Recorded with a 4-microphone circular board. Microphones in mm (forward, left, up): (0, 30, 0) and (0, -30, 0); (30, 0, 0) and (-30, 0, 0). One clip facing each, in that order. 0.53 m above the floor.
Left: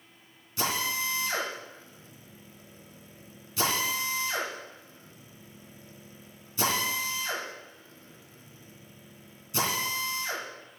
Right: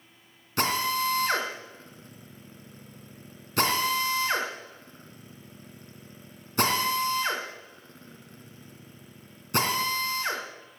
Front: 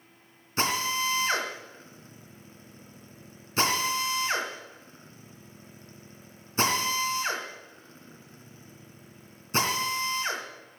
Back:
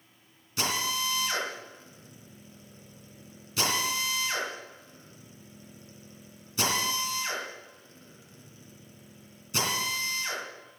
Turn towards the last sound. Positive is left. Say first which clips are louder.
# right 4 dB, front 3 dB
turn(degrees=-55)